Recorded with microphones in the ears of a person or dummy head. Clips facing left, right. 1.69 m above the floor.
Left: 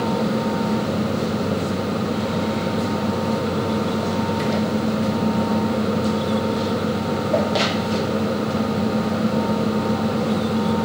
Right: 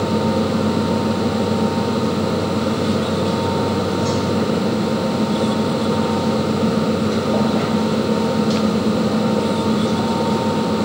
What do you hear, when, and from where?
Only background noise.